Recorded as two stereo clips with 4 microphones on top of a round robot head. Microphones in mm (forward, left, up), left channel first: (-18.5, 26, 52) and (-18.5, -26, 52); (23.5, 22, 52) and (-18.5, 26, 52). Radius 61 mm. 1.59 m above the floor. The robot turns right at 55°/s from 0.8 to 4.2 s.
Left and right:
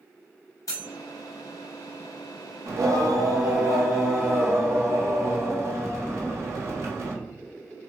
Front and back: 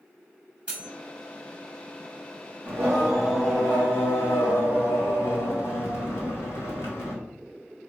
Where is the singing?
125° right, 1.1 m; by 7.2 s 40° right, 1.1 m.